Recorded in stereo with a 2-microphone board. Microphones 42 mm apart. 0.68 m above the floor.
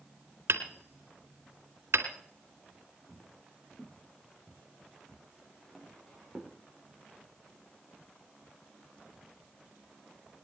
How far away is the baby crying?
No baby crying in this recording.